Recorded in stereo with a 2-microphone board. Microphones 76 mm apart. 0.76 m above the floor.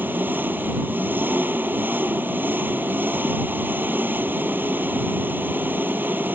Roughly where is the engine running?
Right.